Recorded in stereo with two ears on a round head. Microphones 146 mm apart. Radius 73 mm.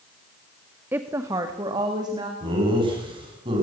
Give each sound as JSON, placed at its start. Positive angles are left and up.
{"t": 0.9, "sound": "a woman speaking", "side_deg": -10, "distance_m": 0.9}
{"t": 2.4, "sound": "laughter", "side_deg": -30, "distance_m": 9.0}